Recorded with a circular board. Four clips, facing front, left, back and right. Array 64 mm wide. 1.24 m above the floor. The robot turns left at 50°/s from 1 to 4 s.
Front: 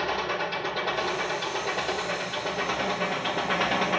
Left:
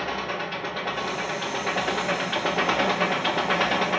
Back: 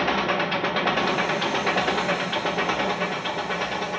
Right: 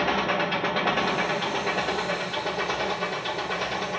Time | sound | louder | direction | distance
0.0 | an engine running | right 5 dB, back 5 dB | 160° right | 1.1 m